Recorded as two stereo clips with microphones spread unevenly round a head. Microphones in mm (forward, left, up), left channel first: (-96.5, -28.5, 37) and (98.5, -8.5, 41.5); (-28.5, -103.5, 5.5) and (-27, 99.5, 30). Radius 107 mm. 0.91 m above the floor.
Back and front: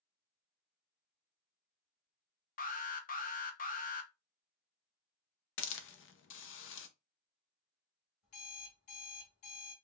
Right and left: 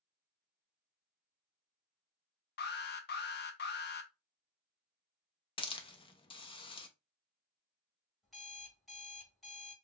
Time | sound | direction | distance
2.6 | an alarm | 130° right | 0.8 m
5.6 | a hiss | 155° right | 0.7 m
8.2 | an alarm clock | straight behind | 2 m